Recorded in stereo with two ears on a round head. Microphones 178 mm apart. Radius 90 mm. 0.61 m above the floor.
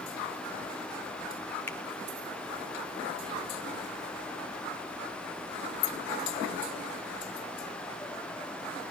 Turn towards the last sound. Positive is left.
turn(degrees=10)  # may be behind; listen again after turning